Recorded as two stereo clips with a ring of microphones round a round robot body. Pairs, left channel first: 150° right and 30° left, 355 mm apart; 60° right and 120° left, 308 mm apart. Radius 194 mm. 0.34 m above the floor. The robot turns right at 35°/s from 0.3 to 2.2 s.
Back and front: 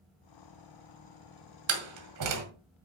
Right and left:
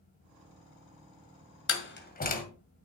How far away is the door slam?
About 2 m.